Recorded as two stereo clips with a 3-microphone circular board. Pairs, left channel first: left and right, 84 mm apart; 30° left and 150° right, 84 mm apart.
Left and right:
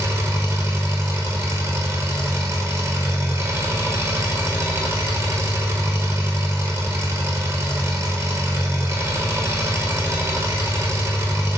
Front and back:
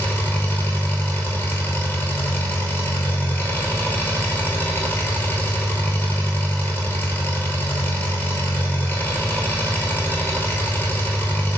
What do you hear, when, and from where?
0.0 s an engine running: 35° right, 1.2 m